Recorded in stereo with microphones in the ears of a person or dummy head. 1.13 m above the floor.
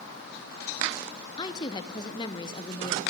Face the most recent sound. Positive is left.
turn(degrees=25)  # may be behind; listen again after turning